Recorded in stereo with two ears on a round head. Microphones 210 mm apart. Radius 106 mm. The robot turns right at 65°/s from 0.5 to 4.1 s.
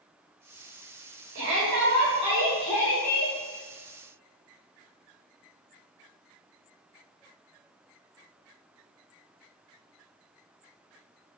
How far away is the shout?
About 4.5 m.